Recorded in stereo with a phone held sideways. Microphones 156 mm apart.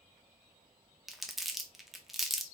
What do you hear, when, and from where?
1.1 s crumpling: centre (ahead or behind), 0.7 m